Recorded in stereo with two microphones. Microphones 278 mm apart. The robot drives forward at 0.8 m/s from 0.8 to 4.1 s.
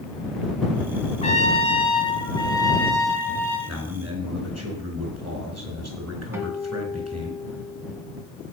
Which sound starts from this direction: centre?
A guitar, at 6.3 s.